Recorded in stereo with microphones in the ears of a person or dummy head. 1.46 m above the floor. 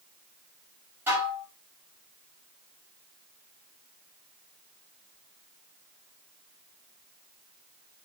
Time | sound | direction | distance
1.1 | dishes clattering | 15° right (ahead or behind) | 2 m